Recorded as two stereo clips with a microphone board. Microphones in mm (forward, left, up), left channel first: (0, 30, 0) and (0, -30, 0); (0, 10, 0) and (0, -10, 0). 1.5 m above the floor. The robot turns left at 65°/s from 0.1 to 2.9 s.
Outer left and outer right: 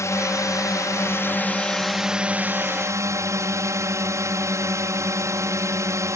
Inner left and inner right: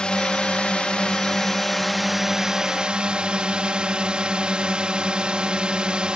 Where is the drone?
120° left; by 6.2 s 65° right.